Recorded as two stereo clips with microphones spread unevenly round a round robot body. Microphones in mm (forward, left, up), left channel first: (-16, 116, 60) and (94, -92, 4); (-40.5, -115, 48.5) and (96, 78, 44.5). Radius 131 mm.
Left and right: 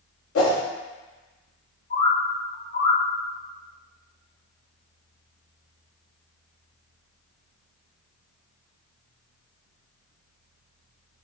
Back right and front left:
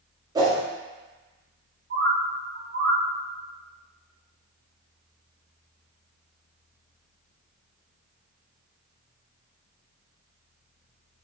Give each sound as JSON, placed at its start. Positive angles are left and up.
{"t": 0.3, "sound": "a whoosh", "azimuth_deg": 125, "distance_m": 1.0}
{"t": 1.9, "sound": "a bird", "azimuth_deg": 80, "distance_m": 1.4}